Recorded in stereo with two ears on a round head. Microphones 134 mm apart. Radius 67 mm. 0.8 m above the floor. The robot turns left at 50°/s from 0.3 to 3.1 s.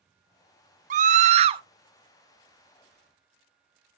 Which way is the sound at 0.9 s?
100° right.